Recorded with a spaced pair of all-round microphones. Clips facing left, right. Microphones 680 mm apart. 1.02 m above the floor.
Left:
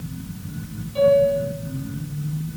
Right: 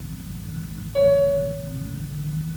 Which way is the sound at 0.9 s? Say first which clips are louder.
Even; 65° right (ahead or behind).